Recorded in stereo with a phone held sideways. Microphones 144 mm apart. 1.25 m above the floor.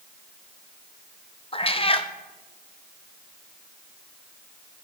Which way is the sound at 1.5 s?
40° left (ahead or behind).